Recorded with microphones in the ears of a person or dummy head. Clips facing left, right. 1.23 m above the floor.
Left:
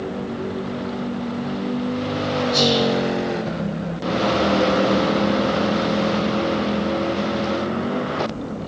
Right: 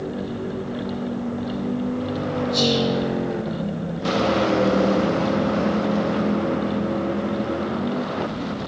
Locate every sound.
2.5 s whispering: 5° right (ahead or behind), 3.5 m